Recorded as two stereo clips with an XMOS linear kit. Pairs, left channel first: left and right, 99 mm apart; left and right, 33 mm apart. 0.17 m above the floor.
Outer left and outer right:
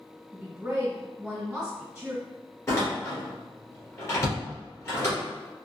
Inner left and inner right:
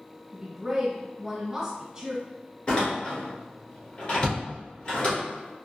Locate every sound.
0.3 s a woman speaking: 10° right (ahead or behind), 1.6 m
2.7 s a door slam: 30° left (ahead or behind), 1.8 m